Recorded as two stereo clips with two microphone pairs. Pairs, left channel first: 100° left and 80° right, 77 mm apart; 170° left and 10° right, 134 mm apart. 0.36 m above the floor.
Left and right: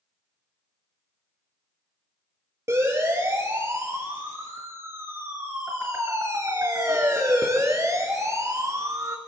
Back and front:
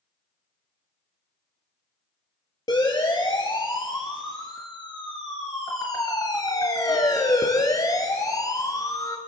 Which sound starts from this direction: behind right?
A siren, at 2.7 s.